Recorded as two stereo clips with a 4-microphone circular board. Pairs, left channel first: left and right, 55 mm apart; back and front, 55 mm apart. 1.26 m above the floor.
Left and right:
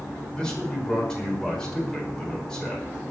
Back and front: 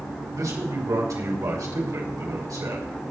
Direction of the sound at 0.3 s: 10° left.